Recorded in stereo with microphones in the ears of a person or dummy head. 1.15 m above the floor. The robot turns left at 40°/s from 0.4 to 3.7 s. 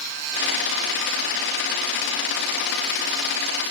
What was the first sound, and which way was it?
Only background noise.